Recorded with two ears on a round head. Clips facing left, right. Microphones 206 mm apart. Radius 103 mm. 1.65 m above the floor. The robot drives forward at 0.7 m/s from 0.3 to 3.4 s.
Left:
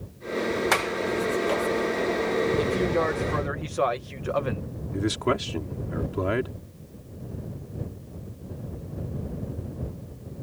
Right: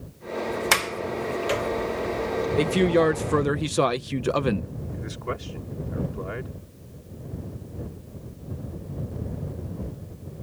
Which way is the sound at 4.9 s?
80° left.